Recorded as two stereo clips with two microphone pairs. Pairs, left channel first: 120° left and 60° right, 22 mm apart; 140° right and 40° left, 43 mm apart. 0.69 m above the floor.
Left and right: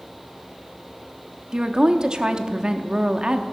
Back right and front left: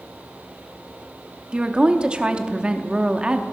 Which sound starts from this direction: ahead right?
A woman speaking, at 1.5 s.